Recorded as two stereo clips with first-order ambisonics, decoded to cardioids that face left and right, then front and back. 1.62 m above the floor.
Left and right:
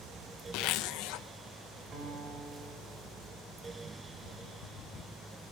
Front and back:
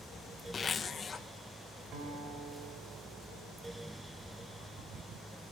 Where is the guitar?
150° right, 6 m.